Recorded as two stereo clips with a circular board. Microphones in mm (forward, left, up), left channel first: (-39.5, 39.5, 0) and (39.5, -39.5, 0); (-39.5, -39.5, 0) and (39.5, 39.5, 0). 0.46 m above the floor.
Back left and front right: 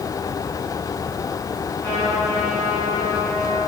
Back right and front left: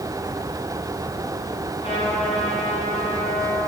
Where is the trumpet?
150° right, 5 m.